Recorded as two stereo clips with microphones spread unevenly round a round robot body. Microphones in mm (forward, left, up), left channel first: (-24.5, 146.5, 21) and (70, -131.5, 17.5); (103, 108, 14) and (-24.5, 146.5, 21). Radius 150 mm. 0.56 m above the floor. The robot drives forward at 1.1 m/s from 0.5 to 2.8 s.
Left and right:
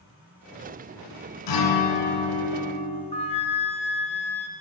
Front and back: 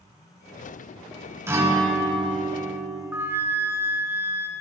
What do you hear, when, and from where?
1.5 s a guitar: 90° left, 2 m; by 3.0 s 125° left, 2.5 m
3.1 s a flute: 120° left, 0.9 m